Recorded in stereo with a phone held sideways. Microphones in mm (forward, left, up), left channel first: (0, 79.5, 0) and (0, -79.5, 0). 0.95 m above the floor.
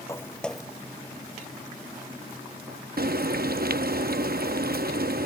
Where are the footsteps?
20° left (ahead or behind); by 2.8 s 65° right (ahead or behind).